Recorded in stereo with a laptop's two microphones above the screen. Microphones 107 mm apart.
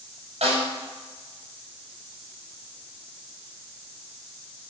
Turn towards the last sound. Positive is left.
turn(degrees=-75)  # may be behind; listen again after turning